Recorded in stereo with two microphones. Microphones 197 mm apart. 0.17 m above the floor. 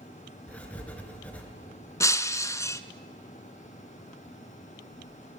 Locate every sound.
0.5 s writing: 5° left (ahead or behind), 2.5 m
2.0 s breaking glass: 15° left (ahead or behind), 0.7 m